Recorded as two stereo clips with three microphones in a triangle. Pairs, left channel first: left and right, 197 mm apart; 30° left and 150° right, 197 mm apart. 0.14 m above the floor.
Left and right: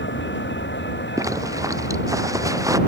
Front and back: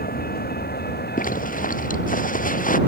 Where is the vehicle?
70° left; by 2.9 s 60° left.